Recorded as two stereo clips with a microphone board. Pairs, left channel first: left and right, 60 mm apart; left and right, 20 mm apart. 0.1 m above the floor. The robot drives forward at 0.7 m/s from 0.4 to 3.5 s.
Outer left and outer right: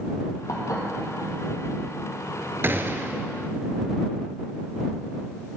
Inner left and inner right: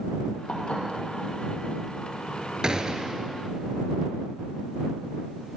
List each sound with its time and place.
0.5 s dishes clattering: 65° left (ahead or behind), 2.5 m
2.6 s a gunshot: 40° right (ahead or behind), 0.8 m; by 3.3 s 35° right (ahead or behind), 0.8 m